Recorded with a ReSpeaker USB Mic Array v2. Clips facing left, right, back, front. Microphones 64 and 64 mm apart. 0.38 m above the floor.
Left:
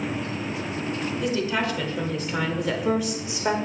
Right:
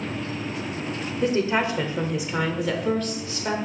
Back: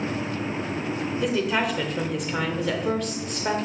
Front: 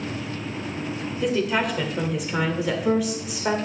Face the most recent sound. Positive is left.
turn(degrees=70)